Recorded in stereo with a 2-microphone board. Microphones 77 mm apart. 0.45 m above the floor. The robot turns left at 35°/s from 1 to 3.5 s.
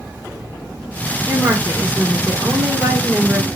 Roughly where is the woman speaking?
Right.